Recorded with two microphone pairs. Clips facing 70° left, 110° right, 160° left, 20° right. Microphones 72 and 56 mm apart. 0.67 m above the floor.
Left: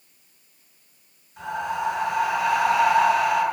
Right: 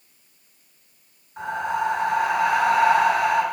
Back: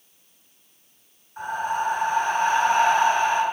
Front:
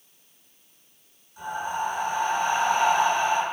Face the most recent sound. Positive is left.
turn(degrees=-160)